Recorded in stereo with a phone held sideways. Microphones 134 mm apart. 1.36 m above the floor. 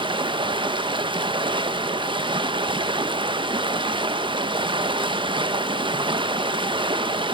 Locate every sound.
0.0 s running water: 35° right (ahead or behind), 1.2 m